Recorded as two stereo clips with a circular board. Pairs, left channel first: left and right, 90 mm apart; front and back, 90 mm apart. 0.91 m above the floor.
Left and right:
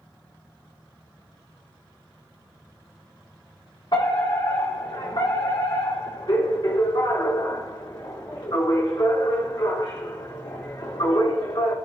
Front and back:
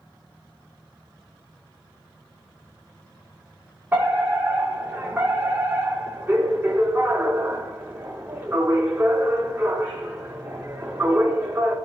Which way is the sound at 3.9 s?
115° left.